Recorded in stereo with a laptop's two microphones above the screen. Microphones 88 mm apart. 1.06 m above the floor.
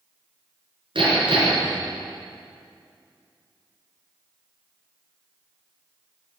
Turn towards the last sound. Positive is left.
turn(degrees=-75)  # may be behind; listen again after turning